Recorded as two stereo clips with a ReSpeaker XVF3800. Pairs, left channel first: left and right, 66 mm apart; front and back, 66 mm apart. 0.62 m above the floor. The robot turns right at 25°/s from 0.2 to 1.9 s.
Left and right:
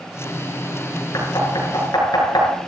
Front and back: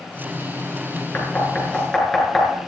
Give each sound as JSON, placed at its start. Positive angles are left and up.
{"t": 1.1, "sound": "knocking", "azimuth_deg": 65, "distance_m": 6.5}